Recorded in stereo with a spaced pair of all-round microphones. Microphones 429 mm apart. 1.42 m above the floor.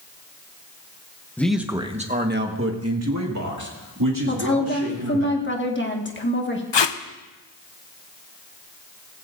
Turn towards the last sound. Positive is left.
turn(degrees=75)  # may be behind; listen again after turning